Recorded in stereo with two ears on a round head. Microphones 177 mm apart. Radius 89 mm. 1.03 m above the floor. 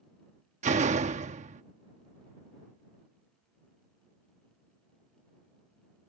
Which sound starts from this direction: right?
A door slam, at 0.6 s.